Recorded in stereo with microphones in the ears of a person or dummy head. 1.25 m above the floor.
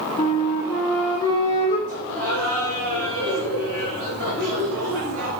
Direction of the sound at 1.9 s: 55° right (ahead or behind).